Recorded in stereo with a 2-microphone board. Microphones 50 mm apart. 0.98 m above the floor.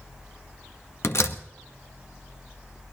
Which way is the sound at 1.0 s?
60° left (ahead or behind).